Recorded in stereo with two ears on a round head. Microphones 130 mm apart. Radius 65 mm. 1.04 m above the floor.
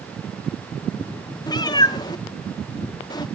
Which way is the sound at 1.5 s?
25° left (ahead or behind).